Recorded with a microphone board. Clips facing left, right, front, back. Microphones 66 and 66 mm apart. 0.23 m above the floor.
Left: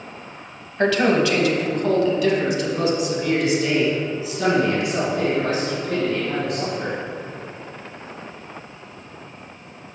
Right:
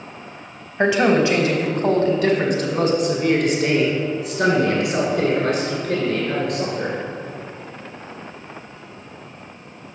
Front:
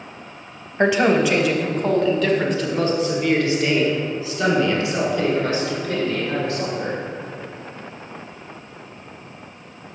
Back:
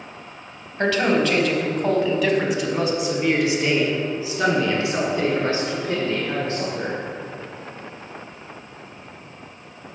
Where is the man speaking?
35° right, 1.0 m; by 7.0 s 120° right, 3.5 m.